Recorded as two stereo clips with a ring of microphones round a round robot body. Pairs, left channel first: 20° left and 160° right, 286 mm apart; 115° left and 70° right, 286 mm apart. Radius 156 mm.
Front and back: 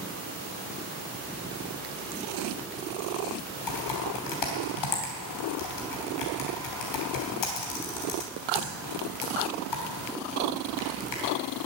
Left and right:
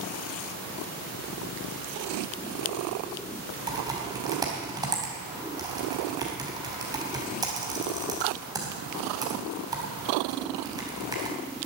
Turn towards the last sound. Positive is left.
turn(degrees=10)